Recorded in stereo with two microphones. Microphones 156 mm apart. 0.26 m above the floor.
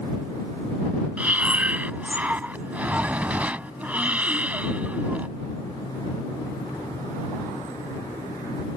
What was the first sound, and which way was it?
Breathing, 10° right (ahead or behind).